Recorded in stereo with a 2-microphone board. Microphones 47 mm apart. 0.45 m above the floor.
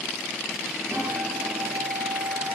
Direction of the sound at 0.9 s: 75° right (ahead or behind).